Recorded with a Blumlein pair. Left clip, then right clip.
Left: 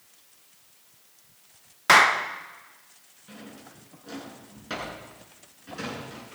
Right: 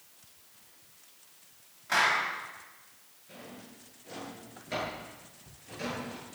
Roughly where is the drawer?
Ahead left.